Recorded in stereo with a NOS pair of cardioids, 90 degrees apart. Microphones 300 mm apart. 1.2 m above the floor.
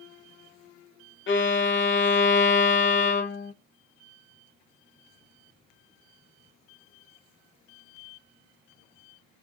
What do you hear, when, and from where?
1.3 s a violin: 40° left, 1.0 m